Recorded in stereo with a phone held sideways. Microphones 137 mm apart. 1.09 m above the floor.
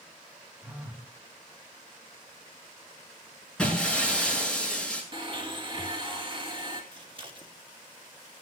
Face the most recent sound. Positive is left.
turn(degrees=-35)  # may be behind; listen again after turning